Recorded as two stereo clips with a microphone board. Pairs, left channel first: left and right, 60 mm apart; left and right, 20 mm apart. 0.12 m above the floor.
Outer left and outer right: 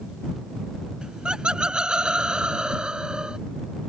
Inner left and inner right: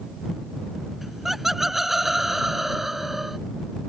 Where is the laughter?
15° right (ahead or behind).